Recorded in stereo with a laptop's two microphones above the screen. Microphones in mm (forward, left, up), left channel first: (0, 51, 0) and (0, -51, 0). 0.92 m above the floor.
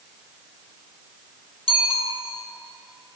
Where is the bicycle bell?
85° left, 2.5 m.